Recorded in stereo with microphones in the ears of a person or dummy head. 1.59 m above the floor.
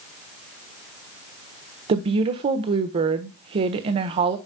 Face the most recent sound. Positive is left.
turn(degrees=-35)  # may be behind; listen again after turning